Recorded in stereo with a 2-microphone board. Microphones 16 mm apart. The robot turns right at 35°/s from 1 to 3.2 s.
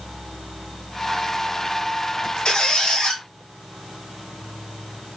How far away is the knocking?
No knocking in this recording.